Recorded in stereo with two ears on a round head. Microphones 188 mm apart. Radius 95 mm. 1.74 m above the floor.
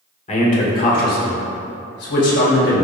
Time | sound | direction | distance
0.3 | a man speaking | 35° left (ahead or behind) | 1.7 m